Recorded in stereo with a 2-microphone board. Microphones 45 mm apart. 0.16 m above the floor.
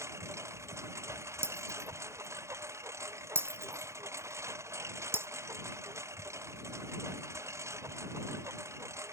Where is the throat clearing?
No throat clearing in this recording.